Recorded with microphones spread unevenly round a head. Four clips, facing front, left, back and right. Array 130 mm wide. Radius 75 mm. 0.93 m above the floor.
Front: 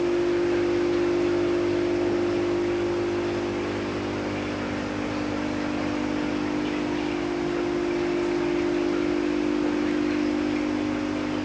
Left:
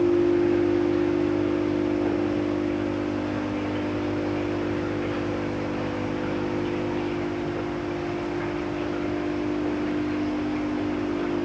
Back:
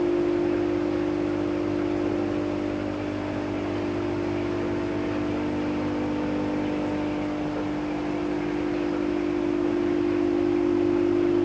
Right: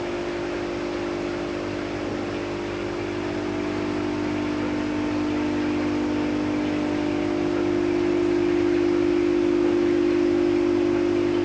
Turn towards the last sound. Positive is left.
No sound to turn to.